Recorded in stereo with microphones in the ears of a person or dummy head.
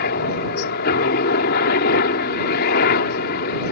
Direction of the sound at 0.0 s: 60° left (ahead or behind).